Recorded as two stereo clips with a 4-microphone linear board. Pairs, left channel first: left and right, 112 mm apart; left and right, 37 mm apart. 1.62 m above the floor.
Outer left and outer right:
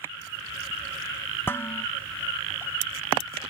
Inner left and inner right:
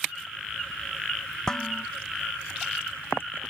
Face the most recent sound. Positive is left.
turn(degrees=20)  # may be behind; listen again after turning